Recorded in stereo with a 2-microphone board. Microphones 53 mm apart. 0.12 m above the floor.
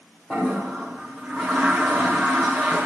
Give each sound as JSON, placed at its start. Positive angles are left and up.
{"t": 0.3, "sound": "a toilet flushing", "side_deg": 20, "distance_m": 3.0}